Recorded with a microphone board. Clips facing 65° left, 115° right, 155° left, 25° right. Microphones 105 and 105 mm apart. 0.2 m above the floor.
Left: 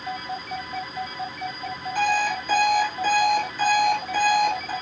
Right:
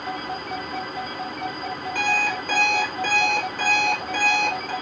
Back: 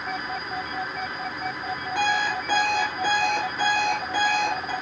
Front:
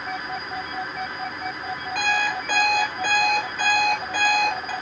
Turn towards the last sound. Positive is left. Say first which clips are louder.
# left 3 dB, even
turn(degrees=-145)